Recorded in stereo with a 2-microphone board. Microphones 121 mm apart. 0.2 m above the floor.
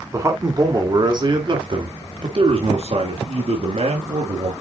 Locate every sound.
0.1 s a man speaking: 25° right (ahead or behind), 2.5 m; by 4.5 s 65° right (ahead or behind), 3.5 m